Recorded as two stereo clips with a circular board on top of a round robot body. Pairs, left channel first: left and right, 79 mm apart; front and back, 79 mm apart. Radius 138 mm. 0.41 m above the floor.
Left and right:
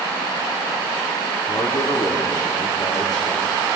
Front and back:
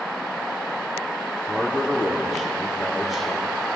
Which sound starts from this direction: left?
A man speaking, at 1.5 s.